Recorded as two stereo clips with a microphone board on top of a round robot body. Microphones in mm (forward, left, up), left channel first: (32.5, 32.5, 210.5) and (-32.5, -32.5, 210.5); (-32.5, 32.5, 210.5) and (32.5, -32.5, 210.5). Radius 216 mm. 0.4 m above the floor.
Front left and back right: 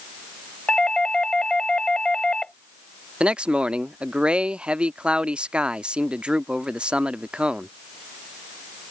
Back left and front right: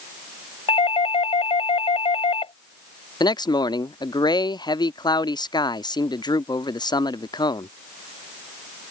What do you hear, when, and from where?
0.7 s a doorbell: 125° left
3.2 s a man speaking: 150° left